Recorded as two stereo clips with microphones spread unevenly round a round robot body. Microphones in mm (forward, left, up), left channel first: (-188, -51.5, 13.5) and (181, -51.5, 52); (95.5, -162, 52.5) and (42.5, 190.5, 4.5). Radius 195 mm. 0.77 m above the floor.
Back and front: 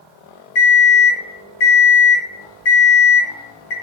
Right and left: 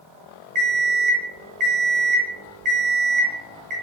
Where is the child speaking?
I don't hear a child speaking.